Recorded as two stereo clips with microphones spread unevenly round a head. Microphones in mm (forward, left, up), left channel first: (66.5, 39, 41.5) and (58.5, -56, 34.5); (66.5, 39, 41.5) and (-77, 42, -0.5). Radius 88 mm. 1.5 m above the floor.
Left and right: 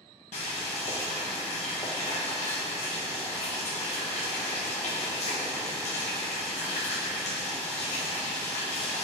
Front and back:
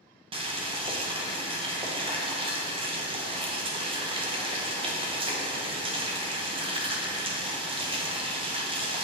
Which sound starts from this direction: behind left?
Boiling, at 0.3 s.